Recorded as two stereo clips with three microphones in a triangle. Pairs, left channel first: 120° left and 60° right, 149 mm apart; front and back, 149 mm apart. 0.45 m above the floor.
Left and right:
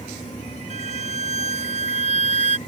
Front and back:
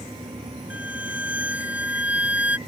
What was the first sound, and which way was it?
A violin, 100° right.